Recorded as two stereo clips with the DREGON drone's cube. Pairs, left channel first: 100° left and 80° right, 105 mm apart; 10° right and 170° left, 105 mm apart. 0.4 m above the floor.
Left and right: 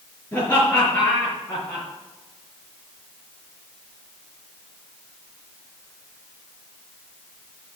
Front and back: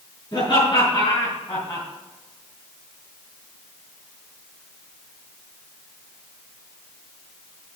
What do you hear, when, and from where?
0.3 s laughter: 45° left, 4.5 m